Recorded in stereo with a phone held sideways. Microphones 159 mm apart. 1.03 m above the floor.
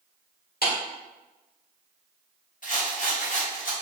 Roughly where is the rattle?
Left.